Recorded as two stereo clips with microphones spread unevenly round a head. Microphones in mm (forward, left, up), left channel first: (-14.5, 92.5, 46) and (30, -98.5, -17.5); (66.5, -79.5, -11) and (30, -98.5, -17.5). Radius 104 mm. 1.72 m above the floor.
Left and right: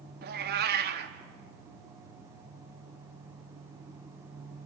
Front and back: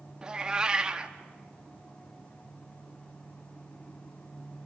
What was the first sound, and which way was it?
A cat meowing, 85° right.